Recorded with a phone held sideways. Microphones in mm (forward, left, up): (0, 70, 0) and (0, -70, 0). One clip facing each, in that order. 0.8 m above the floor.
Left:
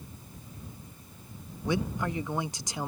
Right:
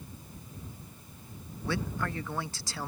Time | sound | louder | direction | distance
1.6 | a man speaking | left 3 dB | 20° left (ahead or behind) | ?